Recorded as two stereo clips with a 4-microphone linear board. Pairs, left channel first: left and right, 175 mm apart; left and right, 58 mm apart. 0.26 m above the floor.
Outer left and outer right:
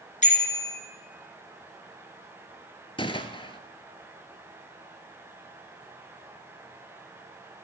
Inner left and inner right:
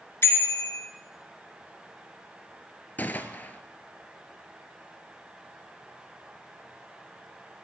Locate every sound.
0.2 s a bicycle bell: 45° left (ahead or behind), 2.5 m
3.0 s a gunshot: 30° left (ahead or behind), 0.8 m